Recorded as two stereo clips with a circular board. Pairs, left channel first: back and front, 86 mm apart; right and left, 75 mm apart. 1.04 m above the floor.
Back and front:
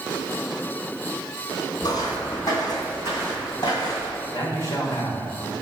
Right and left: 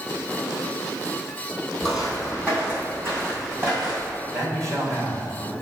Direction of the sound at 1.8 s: 165° left.